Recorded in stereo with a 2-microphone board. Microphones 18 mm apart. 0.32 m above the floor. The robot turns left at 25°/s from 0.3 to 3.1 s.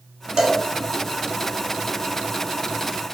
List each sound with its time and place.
0.4 s a cowbell: 40° right (ahead or behind), 0.9 m; by 0.6 s 35° right (ahead or behind), 0.9 m